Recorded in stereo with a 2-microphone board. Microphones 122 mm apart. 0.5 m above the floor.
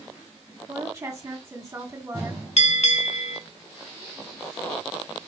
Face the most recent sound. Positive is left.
turn(degrees=60)  # may be behind; listen again after turning